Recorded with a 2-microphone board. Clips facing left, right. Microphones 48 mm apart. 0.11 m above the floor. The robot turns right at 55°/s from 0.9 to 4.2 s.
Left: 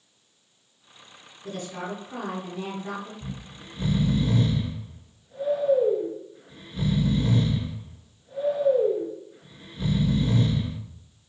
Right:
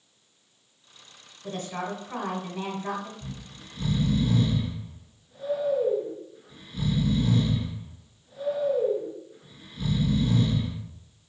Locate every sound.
1.4 s a woman speaking: 155° right, 1.5 m; by 3.1 s 60° right, 1.5 m
3.2 s snoring: 25° left (ahead or behind), 1.1 m; by 10.8 s 20° left (ahead or behind), 1.1 m